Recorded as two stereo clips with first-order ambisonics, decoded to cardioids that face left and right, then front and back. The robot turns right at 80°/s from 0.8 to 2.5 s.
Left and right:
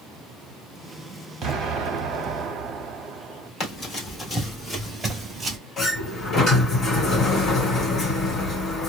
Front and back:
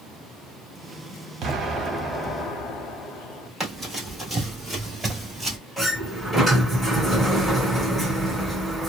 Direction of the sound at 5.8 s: 90° left.